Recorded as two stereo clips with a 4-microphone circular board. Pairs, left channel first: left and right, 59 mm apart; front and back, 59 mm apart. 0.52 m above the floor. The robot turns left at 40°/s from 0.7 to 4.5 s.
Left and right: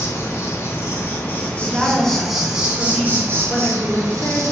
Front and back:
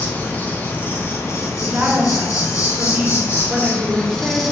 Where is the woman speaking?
155° right, 0.7 m; by 4.4 s 95° left, 0.7 m.